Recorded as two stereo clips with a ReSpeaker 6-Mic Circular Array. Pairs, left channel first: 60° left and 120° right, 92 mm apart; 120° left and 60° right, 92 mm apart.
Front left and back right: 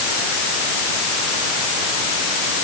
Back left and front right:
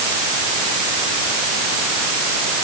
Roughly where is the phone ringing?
No phone ringing in this recording.